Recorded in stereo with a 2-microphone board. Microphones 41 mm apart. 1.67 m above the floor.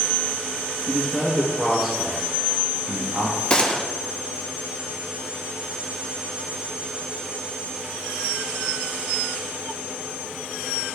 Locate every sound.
0.9 s a man speaking: 10° left (ahead or behind), 1.7 m; by 3.4 s 65° right (ahead or behind), 0.9 m
3.5 s a gunshot: 25° left (ahead or behind), 0.8 m